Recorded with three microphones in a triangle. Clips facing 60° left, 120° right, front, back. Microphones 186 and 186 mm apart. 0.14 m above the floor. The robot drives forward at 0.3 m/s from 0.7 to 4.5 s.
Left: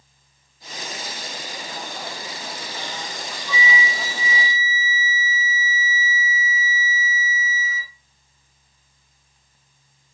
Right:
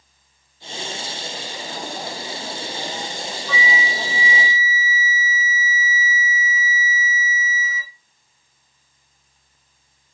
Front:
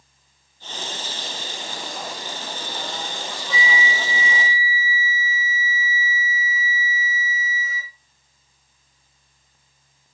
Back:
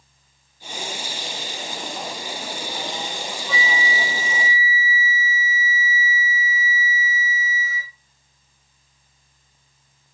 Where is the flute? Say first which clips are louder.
Even, front 1 dB; 165° left, 6.5 m.